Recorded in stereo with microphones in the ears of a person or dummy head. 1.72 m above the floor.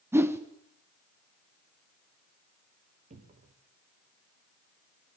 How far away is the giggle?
No giggle in this recording.